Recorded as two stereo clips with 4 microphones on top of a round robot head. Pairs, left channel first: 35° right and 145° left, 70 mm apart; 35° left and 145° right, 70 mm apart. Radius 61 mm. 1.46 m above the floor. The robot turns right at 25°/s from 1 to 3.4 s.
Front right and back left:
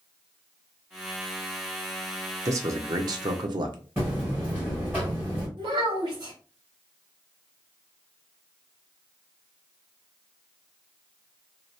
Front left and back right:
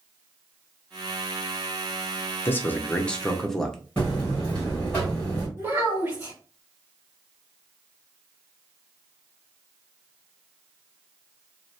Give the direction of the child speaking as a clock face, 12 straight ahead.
7 o'clock.